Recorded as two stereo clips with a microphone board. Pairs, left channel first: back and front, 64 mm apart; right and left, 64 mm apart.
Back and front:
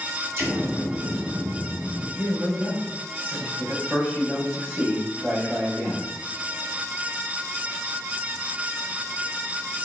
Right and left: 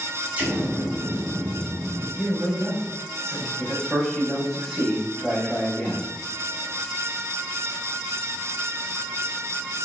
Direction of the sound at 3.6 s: 15° right.